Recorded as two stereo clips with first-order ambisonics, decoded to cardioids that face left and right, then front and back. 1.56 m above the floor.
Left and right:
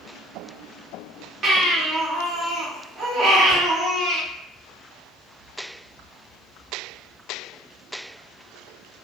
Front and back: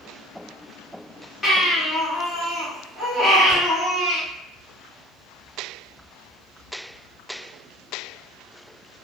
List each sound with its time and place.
1.4 s a baby crying: 65° right, 1.0 m
3.5 s a whoosh: 65° right, 1.2 m